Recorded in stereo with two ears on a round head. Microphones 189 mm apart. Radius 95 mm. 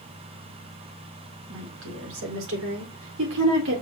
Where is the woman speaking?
70° right (ahead or behind), 5.5 m; by 3.8 s 60° right (ahead or behind), 4.5 m.